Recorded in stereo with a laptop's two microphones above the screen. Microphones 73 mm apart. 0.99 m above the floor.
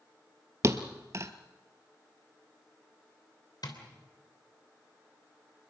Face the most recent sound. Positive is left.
turn(degrees=65)  # may be behind; listen again after turning